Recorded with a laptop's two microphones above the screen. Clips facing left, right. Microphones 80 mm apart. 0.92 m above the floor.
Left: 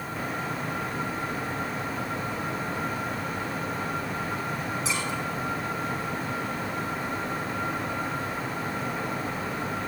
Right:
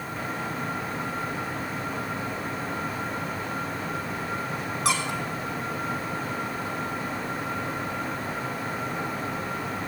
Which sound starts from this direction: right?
A squeak, at 4.8 s.